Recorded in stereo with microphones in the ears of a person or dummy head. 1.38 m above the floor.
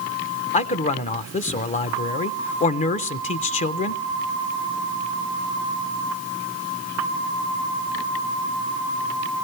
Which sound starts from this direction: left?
A man speaking, at 0.5 s.